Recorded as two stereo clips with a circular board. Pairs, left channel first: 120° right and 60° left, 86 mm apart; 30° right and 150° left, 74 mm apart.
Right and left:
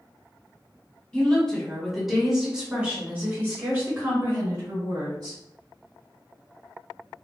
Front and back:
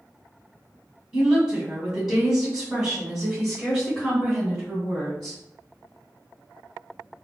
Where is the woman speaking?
160° right, 1.6 m; by 5.4 s 55° left, 2.5 m.